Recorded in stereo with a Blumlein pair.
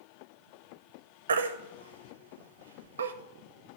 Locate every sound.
1.3 s a baby crying: 65° right, 0.5 m